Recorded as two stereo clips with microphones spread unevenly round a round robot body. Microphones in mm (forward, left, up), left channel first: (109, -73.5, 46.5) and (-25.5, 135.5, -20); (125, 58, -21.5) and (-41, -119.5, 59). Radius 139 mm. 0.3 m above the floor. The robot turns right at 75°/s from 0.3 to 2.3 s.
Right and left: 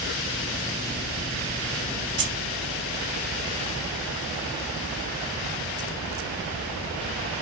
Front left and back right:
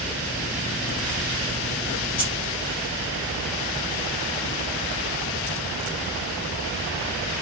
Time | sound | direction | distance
2.2 | keys jangling | 90° left | 1.6 m